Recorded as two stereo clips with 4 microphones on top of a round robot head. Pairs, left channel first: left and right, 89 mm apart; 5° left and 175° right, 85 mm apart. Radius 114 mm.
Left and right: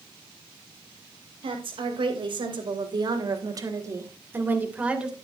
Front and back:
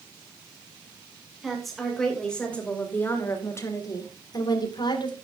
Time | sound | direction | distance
1.4 | a woman speaking | 85° right | 3.5 m